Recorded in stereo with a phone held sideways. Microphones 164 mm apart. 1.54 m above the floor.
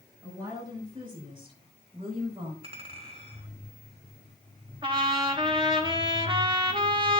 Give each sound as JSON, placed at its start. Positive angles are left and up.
{"t": 0.2, "sound": "a woman speaking", "side_deg": -25, "distance_m": 8.0}
{"t": 2.6, "sound": "a clink", "side_deg": -35, "distance_m": 3.0}
{"t": 4.8, "sound": "a trumpet", "side_deg": -30, "distance_m": 1.7}